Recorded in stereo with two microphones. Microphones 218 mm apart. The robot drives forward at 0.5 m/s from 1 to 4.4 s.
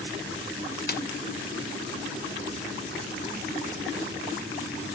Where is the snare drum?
45° left (ahead or behind), 1.0 m.